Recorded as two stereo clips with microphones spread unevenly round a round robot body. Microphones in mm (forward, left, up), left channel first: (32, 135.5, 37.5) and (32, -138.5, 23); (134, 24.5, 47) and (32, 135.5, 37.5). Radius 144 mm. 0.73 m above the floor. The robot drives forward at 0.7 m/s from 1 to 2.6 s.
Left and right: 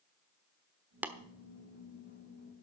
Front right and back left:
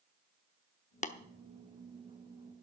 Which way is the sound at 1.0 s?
5° right.